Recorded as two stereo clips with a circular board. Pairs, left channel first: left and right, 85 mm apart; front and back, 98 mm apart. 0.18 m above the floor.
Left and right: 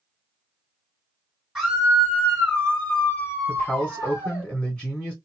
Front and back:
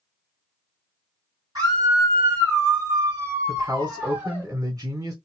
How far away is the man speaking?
About 1.9 m.